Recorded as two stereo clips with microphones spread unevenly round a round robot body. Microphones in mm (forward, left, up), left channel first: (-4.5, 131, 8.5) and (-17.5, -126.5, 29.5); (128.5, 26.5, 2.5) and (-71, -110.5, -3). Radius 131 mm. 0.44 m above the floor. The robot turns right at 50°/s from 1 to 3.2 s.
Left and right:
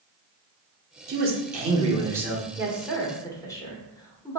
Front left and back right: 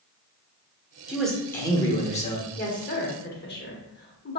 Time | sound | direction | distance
1.1 | a man speaking | 65° right | 0.9 m
2.6 | a woman speaking | 10° right | 0.9 m